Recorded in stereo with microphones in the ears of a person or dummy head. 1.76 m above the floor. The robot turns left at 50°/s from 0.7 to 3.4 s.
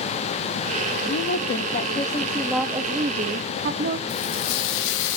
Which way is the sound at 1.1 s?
70° left.